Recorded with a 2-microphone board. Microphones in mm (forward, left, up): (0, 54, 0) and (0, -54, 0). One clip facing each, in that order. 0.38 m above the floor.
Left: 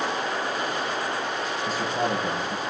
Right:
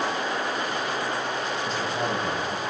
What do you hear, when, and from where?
1.6 s a man speaking: 10° left (ahead or behind), 6.5 m